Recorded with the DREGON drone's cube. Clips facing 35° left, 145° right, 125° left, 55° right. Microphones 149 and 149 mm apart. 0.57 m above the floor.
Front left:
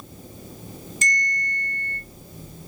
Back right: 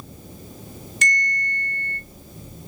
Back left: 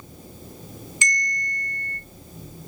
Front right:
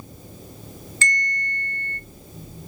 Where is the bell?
160° right, 0.7 m.